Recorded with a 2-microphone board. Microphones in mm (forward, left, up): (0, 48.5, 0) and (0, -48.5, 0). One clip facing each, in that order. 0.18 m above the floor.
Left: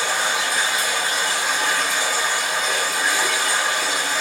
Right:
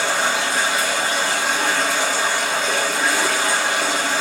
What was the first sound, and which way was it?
Running water, 65° right (ahead or behind).